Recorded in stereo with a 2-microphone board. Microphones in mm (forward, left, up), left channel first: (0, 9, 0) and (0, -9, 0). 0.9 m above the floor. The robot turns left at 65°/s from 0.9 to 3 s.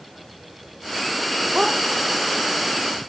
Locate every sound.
1.6 s a dog barking: 45° right (ahead or behind); by 1.8 s 30° right (ahead or behind)